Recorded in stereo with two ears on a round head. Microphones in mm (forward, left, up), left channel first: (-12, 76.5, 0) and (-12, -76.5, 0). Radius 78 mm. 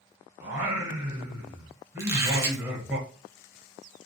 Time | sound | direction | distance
0.4 | singing | 10° right (ahead or behind) | 1.5 m
2.0 | a squeak | 15° right (ahead or behind) | 1.1 m